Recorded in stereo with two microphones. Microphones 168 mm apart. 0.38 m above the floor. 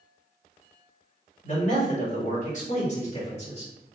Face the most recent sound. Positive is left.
turn(degrees=40)  # may be behind; listen again after turning